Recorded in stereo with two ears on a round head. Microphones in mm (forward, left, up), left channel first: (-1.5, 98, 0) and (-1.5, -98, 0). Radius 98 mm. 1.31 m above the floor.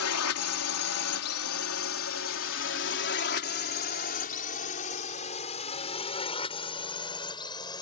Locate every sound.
0.0 s a drone: 75° left (ahead or behind); by 7.8 s 20° left (ahead or behind)